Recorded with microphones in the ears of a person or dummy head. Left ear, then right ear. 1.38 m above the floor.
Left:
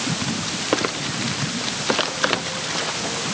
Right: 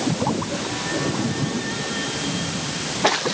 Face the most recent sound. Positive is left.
No sound to turn to.